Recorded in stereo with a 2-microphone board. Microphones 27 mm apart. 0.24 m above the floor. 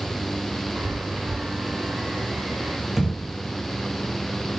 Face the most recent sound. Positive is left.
turn(degrees=-5)  # may be behind; listen again after turning